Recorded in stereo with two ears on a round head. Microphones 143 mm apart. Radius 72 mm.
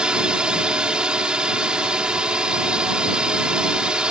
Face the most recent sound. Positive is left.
turn(degrees=-5)  # may be behind; listen again after turning